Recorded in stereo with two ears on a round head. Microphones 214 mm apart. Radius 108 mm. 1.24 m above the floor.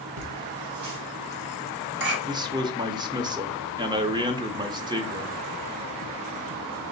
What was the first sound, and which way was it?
Laughter, 70° right (ahead or behind).